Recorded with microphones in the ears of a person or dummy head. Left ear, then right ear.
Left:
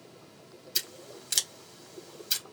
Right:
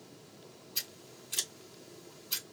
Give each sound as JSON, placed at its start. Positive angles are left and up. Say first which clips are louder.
{"t": 0.8, "sound": "scissors", "louder": "left 6 dB", "side_deg": 70, "distance_m": 1.9}